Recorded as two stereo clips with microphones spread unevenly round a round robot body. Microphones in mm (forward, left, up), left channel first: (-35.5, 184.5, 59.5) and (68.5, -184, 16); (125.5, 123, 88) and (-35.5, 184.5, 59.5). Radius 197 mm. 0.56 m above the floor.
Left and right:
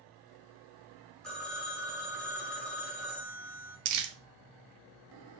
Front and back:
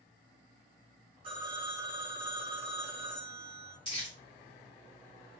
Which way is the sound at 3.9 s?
90° right.